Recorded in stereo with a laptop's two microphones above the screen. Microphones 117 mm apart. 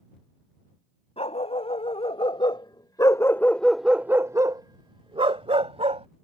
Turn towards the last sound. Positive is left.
turn(degrees=-65)  # may be behind; listen again after turning